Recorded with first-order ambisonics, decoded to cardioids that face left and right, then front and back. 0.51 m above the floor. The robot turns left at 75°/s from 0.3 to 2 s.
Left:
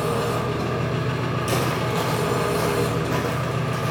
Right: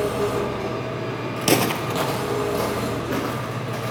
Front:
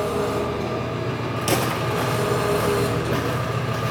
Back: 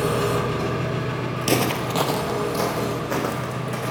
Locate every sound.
0.0 s an engine running: 175° left, 1.8 m; by 3.9 s 45° left, 1.8 m
1.4 s footsteps: 80° right, 0.6 m; by 3.9 s 165° left, 2.5 m